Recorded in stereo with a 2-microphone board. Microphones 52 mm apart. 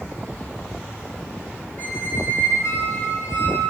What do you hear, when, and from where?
1.8 s a squeak: 50° left (ahead or behind), 2 m